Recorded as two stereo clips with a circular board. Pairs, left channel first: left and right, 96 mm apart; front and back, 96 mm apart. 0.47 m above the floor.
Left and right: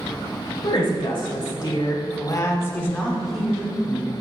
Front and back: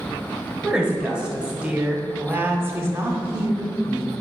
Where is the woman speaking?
100° left, 2 m; by 4.1 s 140° right, 1.2 m.